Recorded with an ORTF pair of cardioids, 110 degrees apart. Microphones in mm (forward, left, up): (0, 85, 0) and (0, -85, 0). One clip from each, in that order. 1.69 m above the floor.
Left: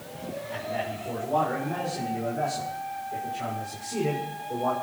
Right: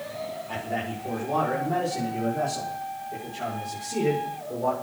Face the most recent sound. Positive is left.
turn(degrees=-10)